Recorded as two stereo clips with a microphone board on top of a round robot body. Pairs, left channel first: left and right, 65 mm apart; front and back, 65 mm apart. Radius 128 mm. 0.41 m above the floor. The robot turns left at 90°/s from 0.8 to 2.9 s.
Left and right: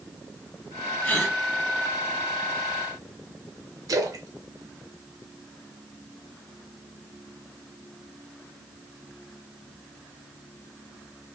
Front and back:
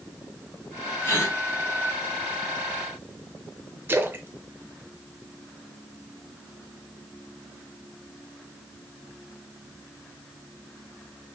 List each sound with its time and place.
1.0 s a gasp: 45° left, 2.0 m; by 1.4 s 15° left, 2.0 m
3.9 s a splash: 120° right, 0.7 m